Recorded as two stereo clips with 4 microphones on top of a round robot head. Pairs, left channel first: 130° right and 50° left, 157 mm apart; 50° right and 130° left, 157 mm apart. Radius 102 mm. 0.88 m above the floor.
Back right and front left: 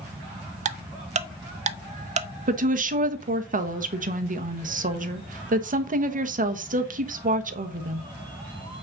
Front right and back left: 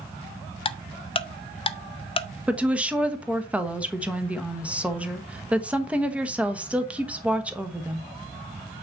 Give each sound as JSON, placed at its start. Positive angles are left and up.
{"t": 0.7, "sound": "ticking", "azimuth_deg": 5, "distance_m": 0.7}
{"t": 2.5, "sound": "a woman speaking", "azimuth_deg": 50, "distance_m": 1.3}